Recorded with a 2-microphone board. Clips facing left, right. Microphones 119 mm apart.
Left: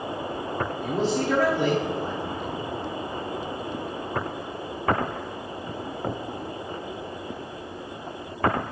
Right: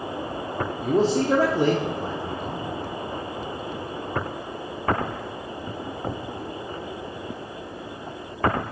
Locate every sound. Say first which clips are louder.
0.8 s a man speaking: right 5 dB; 35° right (ahead or behind), 0.9 m